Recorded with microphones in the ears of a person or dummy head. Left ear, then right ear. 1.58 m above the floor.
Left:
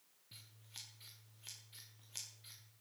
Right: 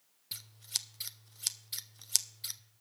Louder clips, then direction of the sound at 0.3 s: Right 16 dB; 70° right (ahead or behind).